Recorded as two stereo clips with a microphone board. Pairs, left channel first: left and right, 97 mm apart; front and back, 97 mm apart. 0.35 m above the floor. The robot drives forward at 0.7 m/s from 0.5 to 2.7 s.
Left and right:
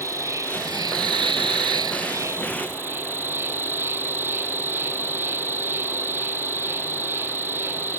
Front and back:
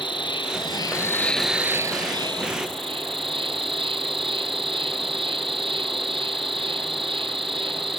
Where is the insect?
30° right; by 8.0 s 155° right.